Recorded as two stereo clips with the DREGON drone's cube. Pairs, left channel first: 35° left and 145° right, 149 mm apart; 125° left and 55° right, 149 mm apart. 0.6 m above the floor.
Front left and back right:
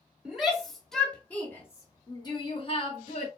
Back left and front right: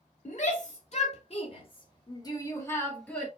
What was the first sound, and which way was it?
A shout, 130° left.